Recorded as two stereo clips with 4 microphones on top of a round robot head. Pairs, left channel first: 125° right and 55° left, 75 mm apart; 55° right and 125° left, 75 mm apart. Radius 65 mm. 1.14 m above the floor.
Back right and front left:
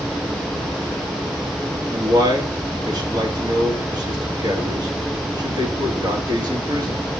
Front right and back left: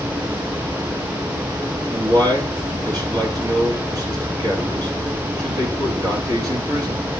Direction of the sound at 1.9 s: 90° left.